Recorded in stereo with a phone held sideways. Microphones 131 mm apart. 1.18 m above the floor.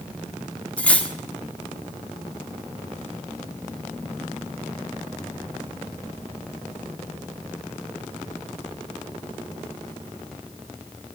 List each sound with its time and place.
0.8 s cutlery clinking: 10° left (ahead or behind), 1.0 m